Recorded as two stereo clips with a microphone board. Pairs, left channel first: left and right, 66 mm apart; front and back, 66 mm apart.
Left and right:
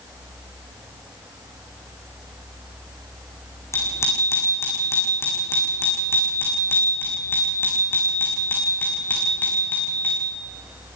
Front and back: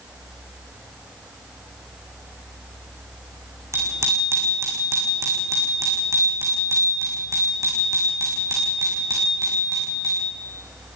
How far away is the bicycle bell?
About 6.5 m.